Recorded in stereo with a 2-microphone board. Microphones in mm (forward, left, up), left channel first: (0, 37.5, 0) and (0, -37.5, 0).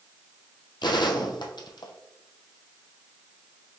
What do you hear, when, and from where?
0.8 s a gunshot: 80° left, 0.8 m